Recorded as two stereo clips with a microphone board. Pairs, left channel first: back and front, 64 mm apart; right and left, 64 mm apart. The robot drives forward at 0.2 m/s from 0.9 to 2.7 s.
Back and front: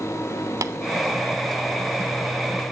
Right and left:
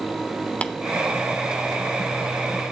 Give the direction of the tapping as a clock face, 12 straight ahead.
1 o'clock.